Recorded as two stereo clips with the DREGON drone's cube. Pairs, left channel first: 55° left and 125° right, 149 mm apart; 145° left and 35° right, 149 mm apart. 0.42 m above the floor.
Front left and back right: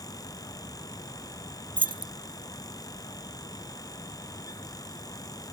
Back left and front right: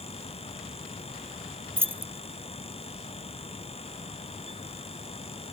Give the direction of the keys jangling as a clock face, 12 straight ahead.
3 o'clock.